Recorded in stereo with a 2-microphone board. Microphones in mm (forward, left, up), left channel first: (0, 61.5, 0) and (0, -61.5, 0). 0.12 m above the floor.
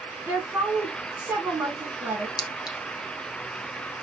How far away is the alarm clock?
I don't hear an alarm clock.